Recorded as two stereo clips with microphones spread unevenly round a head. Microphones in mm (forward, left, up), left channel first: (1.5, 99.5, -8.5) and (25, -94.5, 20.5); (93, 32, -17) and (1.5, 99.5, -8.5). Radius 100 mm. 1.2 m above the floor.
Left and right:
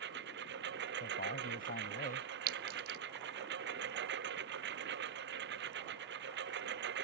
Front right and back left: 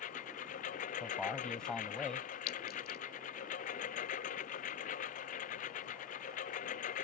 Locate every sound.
0.0 s a lawn mower: 50° right
1.0 s a man speaking: 50° left
2.5 s a clink: 95° right